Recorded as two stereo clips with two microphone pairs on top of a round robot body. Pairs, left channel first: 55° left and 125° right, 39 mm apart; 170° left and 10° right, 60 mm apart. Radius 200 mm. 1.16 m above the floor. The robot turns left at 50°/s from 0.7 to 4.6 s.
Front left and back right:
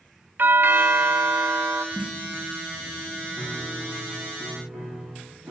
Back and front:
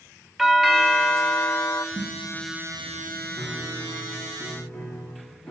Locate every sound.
0.4 s a doorbell: 100° right, 0.7 m; by 1.9 s 155° right, 0.7 m
1.9 s a snare drum: 10° right, 1.9 m; by 2.3 s 30° right, 1.9 m
3.4 s a piano: 50° right, 1.9 m; by 5.5 s 110° right, 1.9 m